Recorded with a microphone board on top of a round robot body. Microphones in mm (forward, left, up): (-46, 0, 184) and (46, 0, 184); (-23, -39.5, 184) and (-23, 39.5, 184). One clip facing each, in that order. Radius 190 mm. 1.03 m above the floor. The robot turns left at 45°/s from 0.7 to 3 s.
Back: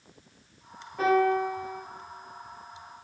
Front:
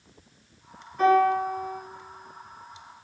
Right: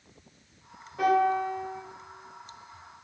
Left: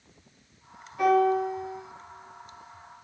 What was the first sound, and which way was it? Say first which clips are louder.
A piano: front 3 dB, left 2 dB; 140° right.